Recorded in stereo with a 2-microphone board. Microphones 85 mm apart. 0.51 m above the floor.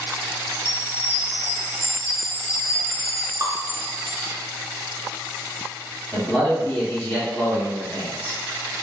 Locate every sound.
0.5 s a chime: 25° left (ahead or behind), 1.3 m
3.4 s dripping: 40° right (ahead or behind), 0.8 m
6.1 s a man speaking: 15° left (ahead or behind), 1.4 m